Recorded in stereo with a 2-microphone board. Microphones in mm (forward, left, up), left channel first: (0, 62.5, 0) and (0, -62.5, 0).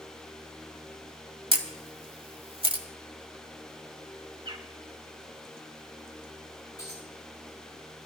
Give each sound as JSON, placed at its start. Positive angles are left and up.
{"t": 1.5, "sound": "a camera shutter", "side_deg": -45, "distance_m": 1.5}
{"t": 4.5, "sound": "a bird", "side_deg": -45, "distance_m": 1.3}
{"t": 6.8, "sound": "a dropped coin", "side_deg": 30, "distance_m": 9.5}